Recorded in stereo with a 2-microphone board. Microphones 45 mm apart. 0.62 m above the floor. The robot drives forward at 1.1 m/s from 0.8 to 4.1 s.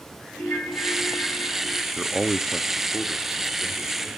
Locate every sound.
0.4 s a ringtone: 80° left, 5 m; by 1.9 s 65° left (ahead or behind), 5.5 m
2.0 s a man speaking: 10° right (ahead or behind), 0.6 m; by 4.2 s centre (ahead or behind), 2 m